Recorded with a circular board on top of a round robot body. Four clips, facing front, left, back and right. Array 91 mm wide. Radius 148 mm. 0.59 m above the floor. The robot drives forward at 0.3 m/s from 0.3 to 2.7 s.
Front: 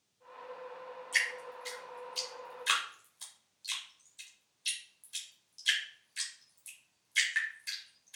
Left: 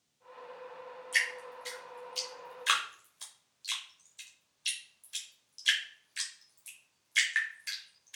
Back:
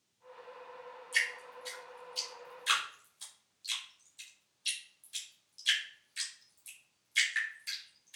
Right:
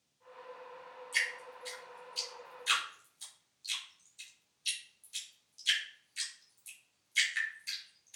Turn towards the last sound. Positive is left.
turn(degrees=85)